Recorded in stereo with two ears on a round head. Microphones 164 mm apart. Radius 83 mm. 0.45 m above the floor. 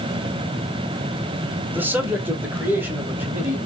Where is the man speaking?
10° right (ahead or behind), 1.2 m.